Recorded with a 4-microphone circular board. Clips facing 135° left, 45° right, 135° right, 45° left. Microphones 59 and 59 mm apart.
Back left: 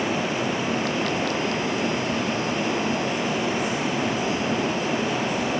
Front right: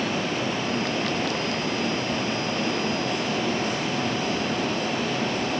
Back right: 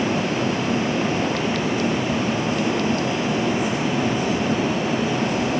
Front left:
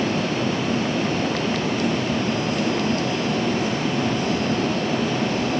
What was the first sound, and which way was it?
Only background noise.